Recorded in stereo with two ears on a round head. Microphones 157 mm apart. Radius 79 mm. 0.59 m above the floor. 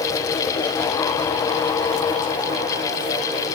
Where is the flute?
I don't hear a flute.